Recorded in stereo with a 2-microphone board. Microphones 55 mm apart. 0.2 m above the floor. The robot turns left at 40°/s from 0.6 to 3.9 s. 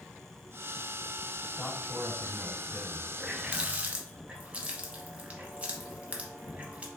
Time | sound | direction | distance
1.6 | a man speaking | 20° right (ahead or behind) | 1.4 m
3.2 | a running tap | 15° right (ahead or behind) | 0.7 m